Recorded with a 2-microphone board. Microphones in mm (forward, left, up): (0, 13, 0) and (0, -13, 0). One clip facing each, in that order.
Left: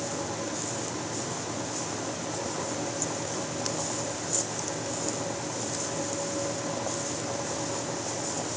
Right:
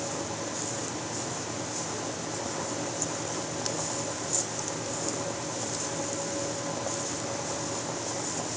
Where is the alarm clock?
No alarm clock in this recording.